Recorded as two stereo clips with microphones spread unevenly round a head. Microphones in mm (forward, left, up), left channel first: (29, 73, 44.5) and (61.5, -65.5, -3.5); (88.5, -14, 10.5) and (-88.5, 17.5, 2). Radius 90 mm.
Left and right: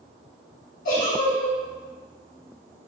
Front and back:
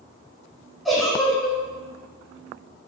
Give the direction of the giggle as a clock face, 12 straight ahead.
9 o'clock.